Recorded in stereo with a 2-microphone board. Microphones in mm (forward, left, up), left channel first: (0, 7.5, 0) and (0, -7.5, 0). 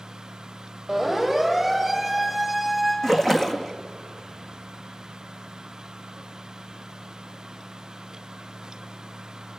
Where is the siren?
Centre (ahead or behind), 4.5 m; by 2.9 s 15° right (ahead or behind), 7 m.